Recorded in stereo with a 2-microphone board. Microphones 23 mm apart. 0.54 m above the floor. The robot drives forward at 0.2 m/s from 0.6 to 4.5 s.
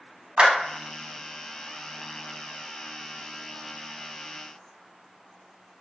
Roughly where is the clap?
Right.